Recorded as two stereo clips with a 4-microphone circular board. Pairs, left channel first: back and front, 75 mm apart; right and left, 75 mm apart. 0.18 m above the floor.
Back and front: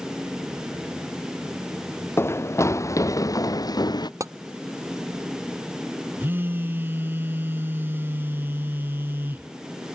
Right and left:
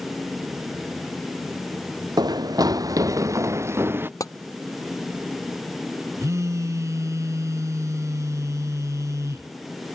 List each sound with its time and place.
2.2 s running footsteps: 120° left; by 4.1 s 155° left
4.2 s tapping: 45° right
6.2 s a phone buzzing: 55° left